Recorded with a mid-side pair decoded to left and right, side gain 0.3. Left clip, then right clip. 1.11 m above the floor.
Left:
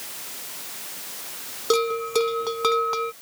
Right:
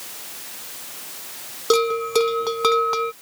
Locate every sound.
1.7 s a bell: 35° right